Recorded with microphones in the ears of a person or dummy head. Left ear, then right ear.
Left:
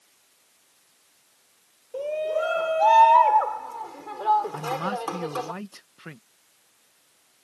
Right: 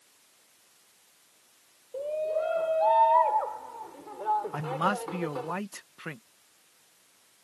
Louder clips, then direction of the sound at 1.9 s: Left 3 dB; 65° left (ahead or behind).